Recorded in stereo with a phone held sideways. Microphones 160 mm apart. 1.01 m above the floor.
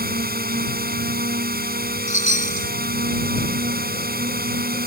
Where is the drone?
75° right (ahead or behind).